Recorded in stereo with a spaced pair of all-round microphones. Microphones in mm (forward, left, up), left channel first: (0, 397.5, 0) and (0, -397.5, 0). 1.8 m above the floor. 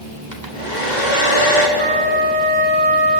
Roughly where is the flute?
Right.